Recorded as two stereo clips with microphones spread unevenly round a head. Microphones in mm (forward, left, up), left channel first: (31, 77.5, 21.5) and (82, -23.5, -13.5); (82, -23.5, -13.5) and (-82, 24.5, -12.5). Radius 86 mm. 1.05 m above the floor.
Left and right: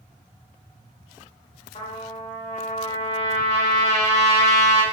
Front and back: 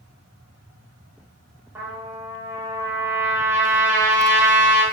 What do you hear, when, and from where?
1.8 s a trumpet: 85° left, 4 m